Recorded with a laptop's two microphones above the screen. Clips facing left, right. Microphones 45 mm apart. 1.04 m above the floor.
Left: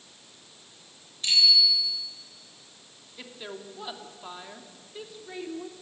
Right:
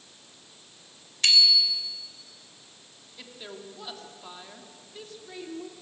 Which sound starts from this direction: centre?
A woman speaking, at 3.2 s.